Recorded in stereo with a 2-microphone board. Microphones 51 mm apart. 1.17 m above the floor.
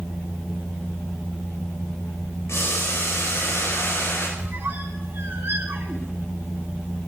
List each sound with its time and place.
2.5 s boiling: 70° left (ahead or behind), 4.5 m
4.4 s a squeak: 50° right (ahead or behind), 1.7 m